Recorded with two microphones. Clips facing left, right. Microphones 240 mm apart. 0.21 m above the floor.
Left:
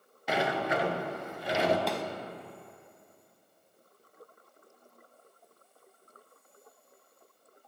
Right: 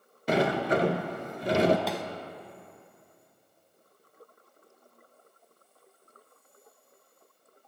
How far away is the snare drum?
About 0.5 m.